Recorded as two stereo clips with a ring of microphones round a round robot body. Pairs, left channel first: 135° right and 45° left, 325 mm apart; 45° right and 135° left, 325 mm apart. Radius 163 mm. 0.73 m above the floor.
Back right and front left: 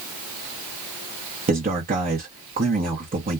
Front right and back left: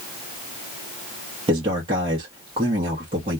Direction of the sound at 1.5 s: 75° left.